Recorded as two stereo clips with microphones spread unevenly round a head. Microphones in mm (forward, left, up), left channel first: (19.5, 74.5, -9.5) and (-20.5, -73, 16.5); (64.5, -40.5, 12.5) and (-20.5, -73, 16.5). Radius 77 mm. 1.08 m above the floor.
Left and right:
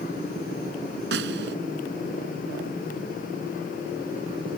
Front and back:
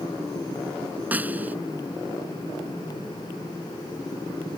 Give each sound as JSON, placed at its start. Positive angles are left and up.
{"t": 1.1, "sound": "a snare drum", "azimuth_deg": -85}